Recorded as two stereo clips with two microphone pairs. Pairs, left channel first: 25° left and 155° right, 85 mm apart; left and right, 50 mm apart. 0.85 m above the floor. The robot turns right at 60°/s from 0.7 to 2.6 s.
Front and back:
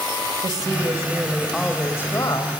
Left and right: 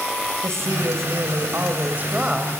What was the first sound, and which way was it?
A woman speaking, 115° right.